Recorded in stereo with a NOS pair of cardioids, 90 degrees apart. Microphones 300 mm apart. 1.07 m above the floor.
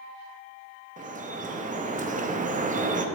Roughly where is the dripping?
Ahead right.